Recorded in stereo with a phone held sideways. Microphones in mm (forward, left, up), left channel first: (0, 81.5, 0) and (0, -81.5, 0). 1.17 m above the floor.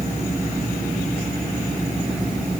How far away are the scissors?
I don't hear scissors.